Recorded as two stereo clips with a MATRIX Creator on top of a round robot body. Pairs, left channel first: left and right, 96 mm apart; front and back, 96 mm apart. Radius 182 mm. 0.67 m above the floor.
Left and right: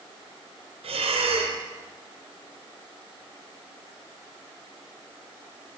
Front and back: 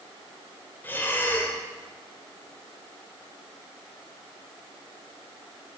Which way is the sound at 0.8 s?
70° right.